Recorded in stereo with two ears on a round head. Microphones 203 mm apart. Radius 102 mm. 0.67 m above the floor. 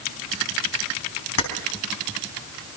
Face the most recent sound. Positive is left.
turn(degrees=70)  # may be behind; listen again after turning